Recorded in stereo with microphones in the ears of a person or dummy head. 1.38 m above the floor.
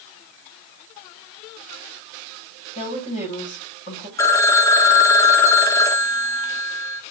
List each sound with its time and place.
2.8 s a woman speaking: 35° left (ahead or behind), 6 m
4.2 s a phone ringing: 20° left (ahead or behind), 0.8 m